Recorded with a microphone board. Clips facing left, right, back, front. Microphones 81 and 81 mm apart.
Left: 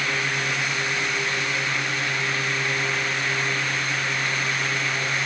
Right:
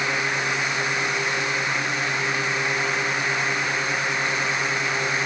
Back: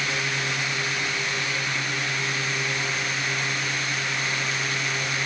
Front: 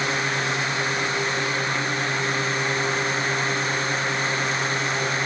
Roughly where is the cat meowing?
No cat meowing in this recording.